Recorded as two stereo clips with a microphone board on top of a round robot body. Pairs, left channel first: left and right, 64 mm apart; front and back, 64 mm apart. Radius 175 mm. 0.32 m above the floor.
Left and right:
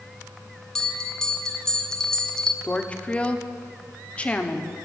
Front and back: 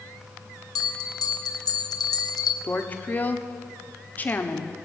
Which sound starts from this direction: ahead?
A bell, at 0.8 s.